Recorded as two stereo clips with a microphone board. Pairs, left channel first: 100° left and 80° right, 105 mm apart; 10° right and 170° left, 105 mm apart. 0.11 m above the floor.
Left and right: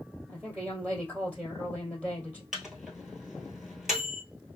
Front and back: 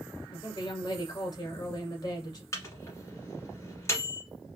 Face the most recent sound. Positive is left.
turn(degrees=5)